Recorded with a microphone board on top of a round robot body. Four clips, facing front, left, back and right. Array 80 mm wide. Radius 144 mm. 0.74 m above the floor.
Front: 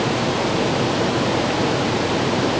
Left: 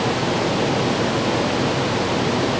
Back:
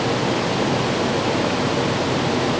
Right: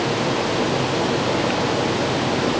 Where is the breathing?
No breathing in this recording.